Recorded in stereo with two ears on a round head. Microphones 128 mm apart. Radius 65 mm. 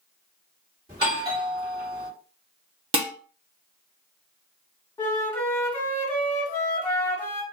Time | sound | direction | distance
0.9 | a doorbell | 30° right (ahead or behind) | 1.7 m
2.9 | dishes clattering | 40° right (ahead or behind) | 0.9 m
5.0 | a flute | 15° left (ahead or behind) | 1.5 m